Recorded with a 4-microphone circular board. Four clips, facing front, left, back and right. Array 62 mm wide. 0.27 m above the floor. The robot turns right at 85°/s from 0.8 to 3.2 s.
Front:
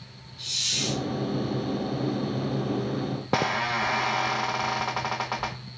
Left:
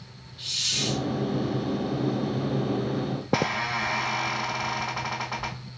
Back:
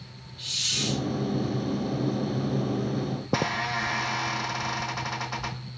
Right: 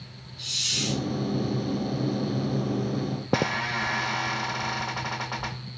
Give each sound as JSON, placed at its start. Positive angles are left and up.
{"t": 0.4, "sound": "a hiss", "azimuth_deg": 125, "distance_m": 1.6}
{"t": 3.2, "sound": "a squeak", "azimuth_deg": 0, "distance_m": 1.1}